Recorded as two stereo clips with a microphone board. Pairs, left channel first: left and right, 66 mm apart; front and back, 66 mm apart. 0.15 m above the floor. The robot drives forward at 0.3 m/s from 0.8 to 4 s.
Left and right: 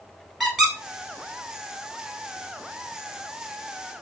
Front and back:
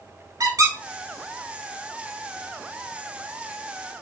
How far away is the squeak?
About 0.8 m.